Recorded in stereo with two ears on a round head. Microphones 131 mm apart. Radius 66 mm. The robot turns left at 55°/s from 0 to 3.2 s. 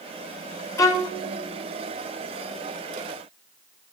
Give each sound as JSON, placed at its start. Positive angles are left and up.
{"t": 0.8, "sound": "a violin", "side_deg": 20, "distance_m": 0.7}